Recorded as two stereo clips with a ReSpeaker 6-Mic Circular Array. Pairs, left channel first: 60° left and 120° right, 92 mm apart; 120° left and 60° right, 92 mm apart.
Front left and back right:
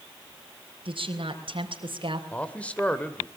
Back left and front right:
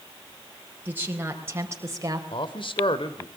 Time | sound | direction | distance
0.8 | a woman speaking | 130° right | 4 m
2.3 | a man speaking | 135° left | 2 m